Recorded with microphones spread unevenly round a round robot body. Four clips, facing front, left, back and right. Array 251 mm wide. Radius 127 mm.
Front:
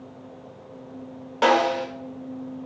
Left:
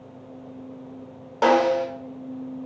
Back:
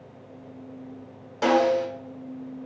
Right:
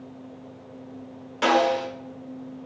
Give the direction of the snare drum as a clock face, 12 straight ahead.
10 o'clock.